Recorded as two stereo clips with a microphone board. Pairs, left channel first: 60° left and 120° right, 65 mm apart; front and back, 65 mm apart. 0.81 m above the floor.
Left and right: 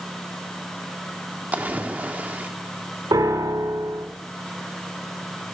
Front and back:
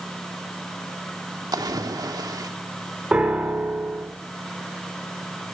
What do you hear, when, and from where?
1.5 s a splash: 175° left, 1.5 m
3.1 s a piano: 105° right, 2.5 m